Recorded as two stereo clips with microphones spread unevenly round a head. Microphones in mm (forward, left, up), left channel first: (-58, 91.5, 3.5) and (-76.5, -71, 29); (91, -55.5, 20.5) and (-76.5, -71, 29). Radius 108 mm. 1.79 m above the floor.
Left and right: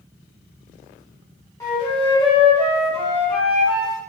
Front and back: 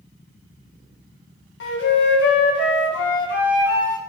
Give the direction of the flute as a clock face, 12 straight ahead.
12 o'clock.